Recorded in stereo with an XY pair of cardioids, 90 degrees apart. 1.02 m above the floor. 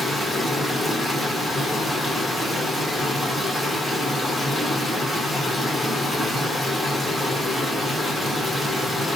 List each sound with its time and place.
0.0 s running water: 5° right, 2 m